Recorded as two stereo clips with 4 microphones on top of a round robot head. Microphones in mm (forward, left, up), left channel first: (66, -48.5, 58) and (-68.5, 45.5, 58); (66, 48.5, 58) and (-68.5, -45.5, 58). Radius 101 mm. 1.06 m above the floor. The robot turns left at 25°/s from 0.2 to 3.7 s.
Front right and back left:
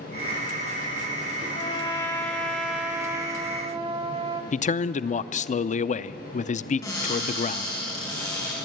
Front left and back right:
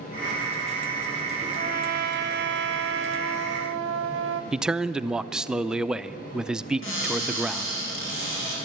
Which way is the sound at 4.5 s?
60° right.